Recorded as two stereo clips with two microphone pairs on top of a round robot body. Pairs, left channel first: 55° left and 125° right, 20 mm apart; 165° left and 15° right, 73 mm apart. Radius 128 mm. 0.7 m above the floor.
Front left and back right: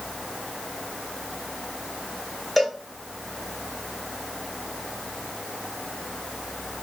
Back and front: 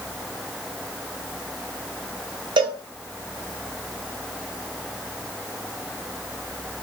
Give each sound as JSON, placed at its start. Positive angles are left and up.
{"t": 2.6, "sound": "a cowbell", "azimuth_deg": -25, "distance_m": 0.6}